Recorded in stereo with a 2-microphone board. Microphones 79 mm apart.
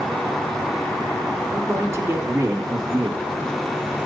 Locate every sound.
1.5 s a man speaking: 30° right (ahead or behind), 2.5 m; by 3.3 s 45° right (ahead or behind), 2 m